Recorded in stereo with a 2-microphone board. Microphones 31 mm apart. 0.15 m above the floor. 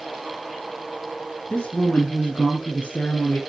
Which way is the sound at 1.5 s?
30° left (ahead or behind).